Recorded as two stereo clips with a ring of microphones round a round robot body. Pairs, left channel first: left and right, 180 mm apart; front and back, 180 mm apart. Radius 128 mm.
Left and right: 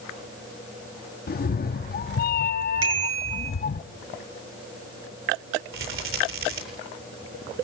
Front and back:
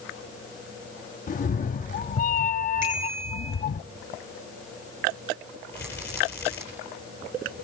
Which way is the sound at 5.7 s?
85° right.